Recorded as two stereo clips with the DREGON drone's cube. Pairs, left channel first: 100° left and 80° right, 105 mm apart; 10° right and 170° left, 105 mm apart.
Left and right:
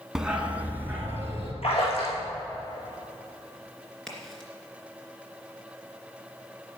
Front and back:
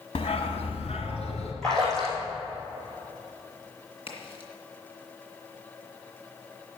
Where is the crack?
15° left, 2.5 m.